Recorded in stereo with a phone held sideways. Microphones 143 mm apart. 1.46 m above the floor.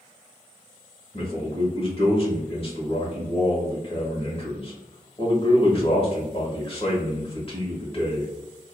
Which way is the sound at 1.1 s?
40° left (ahead or behind).